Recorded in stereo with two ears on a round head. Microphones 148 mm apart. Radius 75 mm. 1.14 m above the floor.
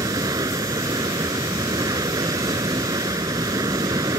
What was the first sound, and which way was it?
Running water, 20° right (ahead or behind).